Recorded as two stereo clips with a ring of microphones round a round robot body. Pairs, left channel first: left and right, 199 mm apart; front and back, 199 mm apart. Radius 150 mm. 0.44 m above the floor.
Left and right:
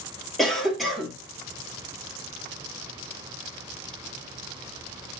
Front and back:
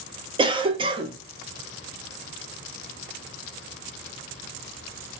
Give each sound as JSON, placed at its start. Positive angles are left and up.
{"t": 0.4, "sound": "a cough", "azimuth_deg": 180, "distance_m": 1.0}